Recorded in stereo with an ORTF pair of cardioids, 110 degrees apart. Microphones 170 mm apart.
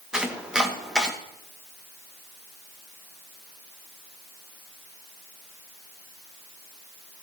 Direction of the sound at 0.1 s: 5° right.